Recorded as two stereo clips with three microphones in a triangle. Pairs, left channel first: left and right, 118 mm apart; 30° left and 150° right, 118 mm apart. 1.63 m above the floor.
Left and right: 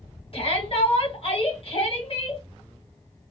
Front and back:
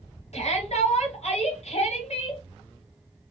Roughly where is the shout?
Ahead left.